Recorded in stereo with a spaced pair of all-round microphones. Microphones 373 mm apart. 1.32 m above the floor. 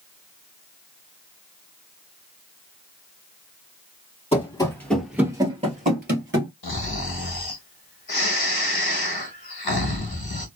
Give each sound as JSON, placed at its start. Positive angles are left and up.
{"t": 4.3, "sound": "running footsteps", "side_deg": 15, "distance_m": 1.5}
{"t": 6.6, "sound": "snoring", "side_deg": 70, "distance_m": 0.9}